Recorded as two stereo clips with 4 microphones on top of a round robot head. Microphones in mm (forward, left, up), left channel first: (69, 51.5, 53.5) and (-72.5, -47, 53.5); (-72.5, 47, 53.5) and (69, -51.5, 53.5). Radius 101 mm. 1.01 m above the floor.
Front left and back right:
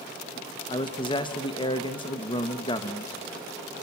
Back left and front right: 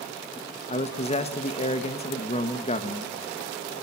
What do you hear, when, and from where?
0.7 s a man speaking: 95° left, 1.7 m